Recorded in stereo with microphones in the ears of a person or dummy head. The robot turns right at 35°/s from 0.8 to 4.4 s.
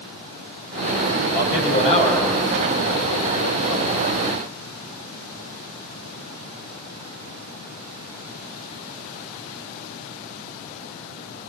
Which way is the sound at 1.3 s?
130° left.